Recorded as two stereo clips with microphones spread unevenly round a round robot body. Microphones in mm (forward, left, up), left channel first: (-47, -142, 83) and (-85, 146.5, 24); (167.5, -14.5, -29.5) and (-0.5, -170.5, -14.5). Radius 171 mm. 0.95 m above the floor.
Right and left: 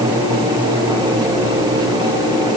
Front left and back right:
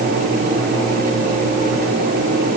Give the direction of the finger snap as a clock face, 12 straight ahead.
No finger snap in this recording.